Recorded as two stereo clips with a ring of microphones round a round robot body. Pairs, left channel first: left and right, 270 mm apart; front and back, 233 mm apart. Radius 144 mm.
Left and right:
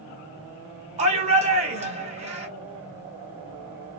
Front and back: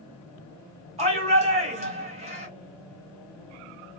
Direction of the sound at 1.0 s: 135° right.